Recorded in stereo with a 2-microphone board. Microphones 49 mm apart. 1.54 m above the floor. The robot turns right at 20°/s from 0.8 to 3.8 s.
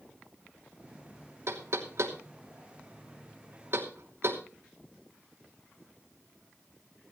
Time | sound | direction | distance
1.5 | knocking | 70° right (ahead or behind) | 3 m